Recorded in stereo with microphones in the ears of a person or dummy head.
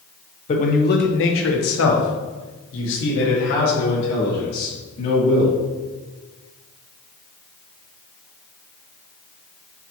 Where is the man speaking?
35° left (ahead or behind), 0.7 m; by 5.6 s 55° left (ahead or behind), 2.5 m.